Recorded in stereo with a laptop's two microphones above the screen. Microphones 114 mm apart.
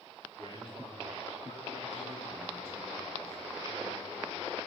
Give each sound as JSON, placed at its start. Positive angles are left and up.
{"t": 0.4, "sound": "a man speaking", "side_deg": 40, "distance_m": 2.5}